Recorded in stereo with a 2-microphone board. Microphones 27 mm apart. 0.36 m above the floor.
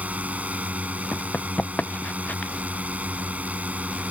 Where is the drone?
65° right (ahead or behind).